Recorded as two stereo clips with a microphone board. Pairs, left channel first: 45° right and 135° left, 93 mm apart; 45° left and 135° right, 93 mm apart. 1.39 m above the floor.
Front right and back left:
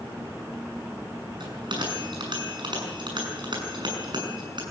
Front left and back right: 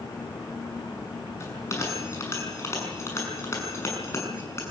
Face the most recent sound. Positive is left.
turn(degrees=105)